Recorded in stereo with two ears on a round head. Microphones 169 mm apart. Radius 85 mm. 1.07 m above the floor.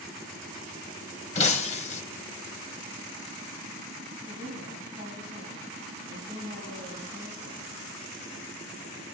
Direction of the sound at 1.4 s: 35° left (ahead or behind).